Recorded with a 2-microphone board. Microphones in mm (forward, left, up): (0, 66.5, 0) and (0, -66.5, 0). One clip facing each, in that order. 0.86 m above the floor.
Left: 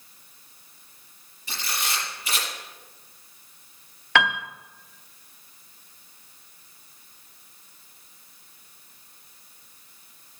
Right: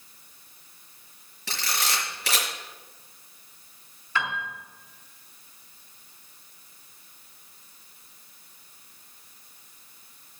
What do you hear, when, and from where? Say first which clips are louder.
1.5 s a camera shutter: right 1 dB; 80° right, 5 m
4.2 s a piano: left 7 dB; 75° left (ahead or behind), 0.6 m